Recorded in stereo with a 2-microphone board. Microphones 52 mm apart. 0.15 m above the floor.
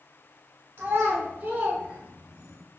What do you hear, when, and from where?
0.8 s a child speaking: 35° right (ahead or behind), 0.8 m; by 2.6 s 15° right (ahead or behind), 1.3 m